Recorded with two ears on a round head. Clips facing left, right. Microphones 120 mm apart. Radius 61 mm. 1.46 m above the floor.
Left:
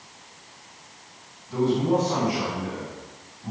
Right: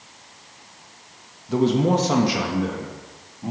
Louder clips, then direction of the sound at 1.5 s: Right 3 dB; 70° right (ahead or behind).